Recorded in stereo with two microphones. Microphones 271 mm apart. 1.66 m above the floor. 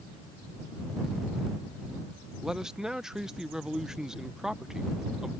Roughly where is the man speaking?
Centre.